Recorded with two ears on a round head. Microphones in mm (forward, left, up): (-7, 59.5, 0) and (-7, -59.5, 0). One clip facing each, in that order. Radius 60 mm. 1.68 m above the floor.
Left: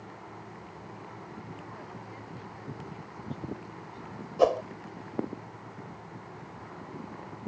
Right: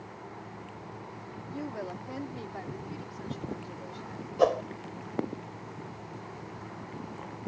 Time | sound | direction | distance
1.5 | a woman speaking | 65° right (ahead or behind) | ?
4.4 | a whoosh | 5° left (ahead or behind) | ?